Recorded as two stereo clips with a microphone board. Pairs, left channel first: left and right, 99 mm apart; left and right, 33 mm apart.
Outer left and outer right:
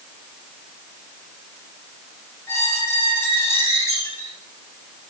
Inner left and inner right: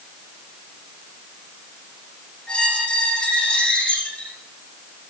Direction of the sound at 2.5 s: 30° left (ahead or behind).